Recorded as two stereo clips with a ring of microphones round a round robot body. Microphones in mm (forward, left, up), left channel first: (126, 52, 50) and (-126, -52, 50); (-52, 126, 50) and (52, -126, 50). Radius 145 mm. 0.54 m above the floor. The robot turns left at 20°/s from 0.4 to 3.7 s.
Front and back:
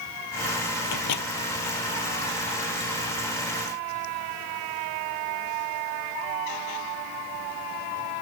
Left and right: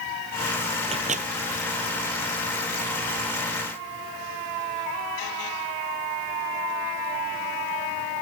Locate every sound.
0.8 s a microwave: 5° left; by 1.3 s 5° right